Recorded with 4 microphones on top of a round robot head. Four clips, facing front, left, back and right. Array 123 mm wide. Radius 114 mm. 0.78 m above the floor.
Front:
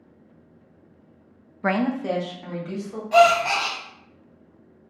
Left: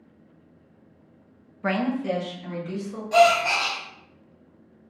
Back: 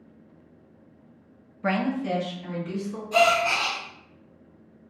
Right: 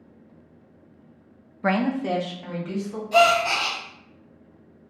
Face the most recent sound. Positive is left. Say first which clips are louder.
# left 1 dB, front 5 dB
turn(degrees=15)